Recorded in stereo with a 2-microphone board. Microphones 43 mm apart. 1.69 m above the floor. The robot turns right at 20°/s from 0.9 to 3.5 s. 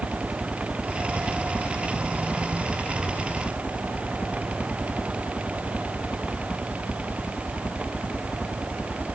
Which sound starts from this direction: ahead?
A helicopter, at 0.0 s.